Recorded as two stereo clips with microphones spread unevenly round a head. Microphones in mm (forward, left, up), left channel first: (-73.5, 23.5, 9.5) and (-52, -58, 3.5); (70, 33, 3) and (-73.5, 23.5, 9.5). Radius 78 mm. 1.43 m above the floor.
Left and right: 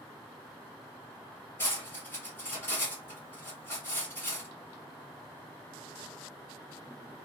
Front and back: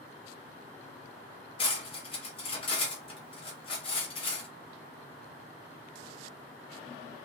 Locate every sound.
1.6 s cutlery clinking: 45° left, 1.0 m